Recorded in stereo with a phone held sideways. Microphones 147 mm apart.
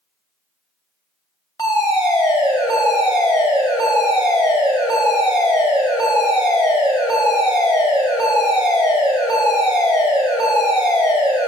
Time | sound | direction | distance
1.6 | a fire alarm | 25° left (ahead or behind) | 1.8 m